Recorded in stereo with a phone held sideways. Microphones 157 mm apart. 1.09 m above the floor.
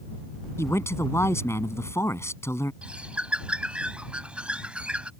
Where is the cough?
I don't hear a cough.